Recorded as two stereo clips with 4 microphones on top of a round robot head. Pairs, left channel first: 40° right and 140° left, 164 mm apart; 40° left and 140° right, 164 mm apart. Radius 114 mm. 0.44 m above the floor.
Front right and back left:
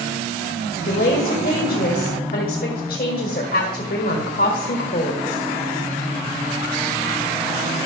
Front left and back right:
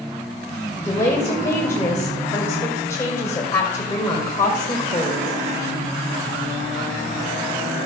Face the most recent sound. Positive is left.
turn(degrees=-35)